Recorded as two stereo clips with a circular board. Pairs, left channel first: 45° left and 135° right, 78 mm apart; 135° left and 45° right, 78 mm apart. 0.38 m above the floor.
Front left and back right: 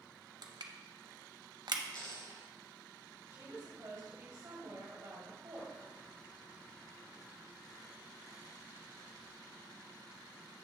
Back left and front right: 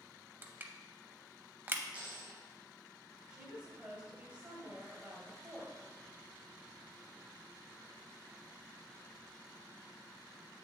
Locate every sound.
0.4 s crushing: 110° right, 0.6 m
1.9 s a dropped coin: 25° left, 2.5 m
3.3 s a woman speaking: 110° right, 1.6 m